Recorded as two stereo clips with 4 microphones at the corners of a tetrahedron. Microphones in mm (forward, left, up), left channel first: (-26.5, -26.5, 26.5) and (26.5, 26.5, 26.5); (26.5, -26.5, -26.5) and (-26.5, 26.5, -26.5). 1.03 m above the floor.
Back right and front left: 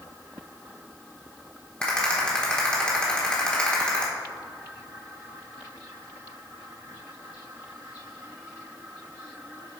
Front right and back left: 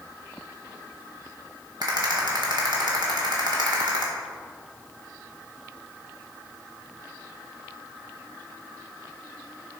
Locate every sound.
1.8 s a rattle: 145° left, 1.7 m